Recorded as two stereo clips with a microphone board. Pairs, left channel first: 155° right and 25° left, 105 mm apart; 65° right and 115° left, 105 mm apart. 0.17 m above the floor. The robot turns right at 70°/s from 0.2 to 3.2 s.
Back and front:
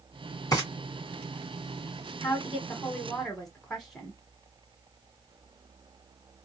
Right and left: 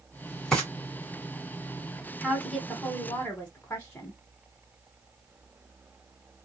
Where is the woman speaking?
145° right, 1.0 m; by 4.2 s 75° right, 1.0 m.